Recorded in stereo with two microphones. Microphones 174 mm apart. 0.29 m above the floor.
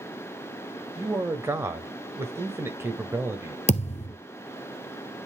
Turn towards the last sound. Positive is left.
turn(degrees=40)  # may be behind; listen again after turning